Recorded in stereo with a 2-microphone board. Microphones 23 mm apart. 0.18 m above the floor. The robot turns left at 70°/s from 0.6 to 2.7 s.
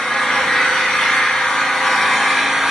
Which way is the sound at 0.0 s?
120° left.